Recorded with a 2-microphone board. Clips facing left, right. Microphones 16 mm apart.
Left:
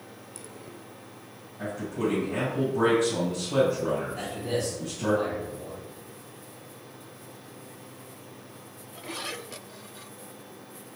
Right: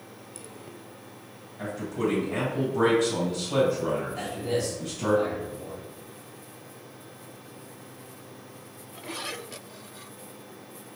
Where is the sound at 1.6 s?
30° right (ahead or behind), 2.0 m.